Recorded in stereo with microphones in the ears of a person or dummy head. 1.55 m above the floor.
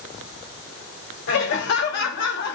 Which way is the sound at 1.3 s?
65° left (ahead or behind).